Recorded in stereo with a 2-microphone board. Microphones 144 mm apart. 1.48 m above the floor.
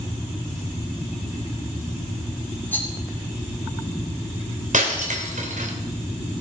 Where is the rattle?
15° left (ahead or behind), 3 m.